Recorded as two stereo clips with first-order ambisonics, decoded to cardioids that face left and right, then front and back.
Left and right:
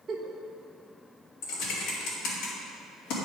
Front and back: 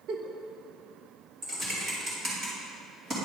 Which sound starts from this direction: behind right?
A giggle, at 0.1 s.